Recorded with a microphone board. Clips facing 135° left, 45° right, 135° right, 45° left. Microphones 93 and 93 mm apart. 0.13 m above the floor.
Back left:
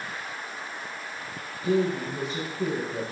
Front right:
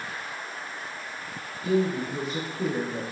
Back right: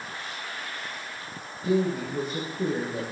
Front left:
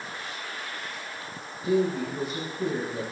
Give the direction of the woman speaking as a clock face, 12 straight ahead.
3 o'clock.